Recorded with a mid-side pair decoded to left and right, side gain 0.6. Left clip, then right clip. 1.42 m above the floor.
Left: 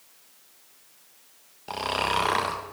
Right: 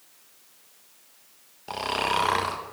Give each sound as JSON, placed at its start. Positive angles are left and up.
{"t": 1.7, "sound": "snoring", "azimuth_deg": 0, "distance_m": 1.2}